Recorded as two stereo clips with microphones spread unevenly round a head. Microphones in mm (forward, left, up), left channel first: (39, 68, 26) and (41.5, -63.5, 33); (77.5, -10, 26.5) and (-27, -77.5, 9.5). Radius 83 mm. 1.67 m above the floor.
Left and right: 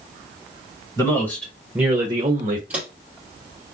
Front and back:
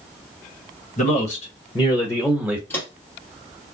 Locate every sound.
1.0 s a man speaking: 25° left, 1.8 m; by 2.6 s 65° right, 1.4 m
2.7 s footsteps: 20° right, 2.0 m